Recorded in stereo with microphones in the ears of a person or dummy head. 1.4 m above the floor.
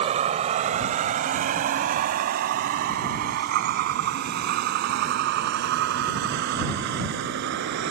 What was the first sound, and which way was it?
A vehicle, 35° right (ahead or behind).